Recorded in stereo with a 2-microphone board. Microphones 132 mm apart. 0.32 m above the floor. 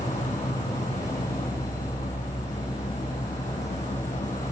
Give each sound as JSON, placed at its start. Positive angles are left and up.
{"t": 0.0, "sound": "an insect", "side_deg": 65, "distance_m": 1.2}